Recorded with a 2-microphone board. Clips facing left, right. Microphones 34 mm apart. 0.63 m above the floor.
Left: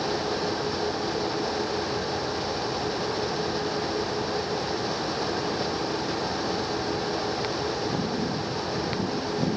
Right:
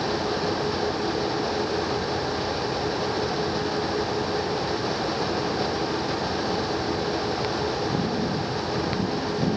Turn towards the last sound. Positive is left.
No sound to turn to.